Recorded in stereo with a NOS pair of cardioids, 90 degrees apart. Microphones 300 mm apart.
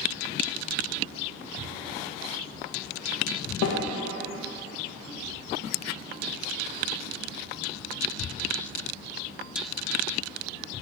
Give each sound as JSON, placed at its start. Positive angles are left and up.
{"t": 3.6, "sound": "a snare drum", "azimuth_deg": 65, "distance_m": 1.9}